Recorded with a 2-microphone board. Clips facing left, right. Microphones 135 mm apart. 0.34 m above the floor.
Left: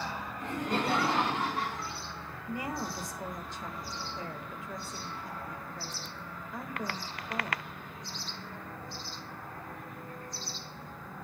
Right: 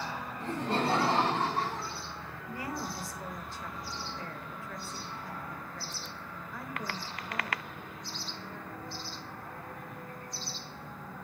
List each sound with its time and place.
0.4 s laughter: 30° right (ahead or behind), 2.5 m
2.5 s a woman speaking: 20° left (ahead or behind), 0.9 m